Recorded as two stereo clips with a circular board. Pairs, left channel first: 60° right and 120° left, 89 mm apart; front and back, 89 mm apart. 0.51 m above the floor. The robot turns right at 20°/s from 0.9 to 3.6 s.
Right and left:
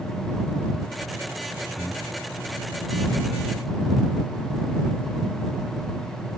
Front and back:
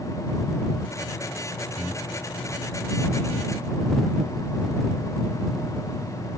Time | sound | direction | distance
1.8 | breathing | 140° right | ?